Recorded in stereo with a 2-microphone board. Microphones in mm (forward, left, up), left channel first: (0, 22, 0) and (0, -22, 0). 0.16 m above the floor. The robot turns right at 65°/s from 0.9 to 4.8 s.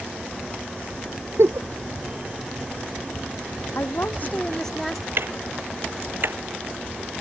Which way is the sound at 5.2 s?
60° right (ahead or behind).